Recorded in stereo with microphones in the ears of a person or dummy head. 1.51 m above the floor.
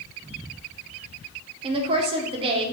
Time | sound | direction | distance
1.6 | a woman speaking | 30° right (ahead or behind) | 0.7 m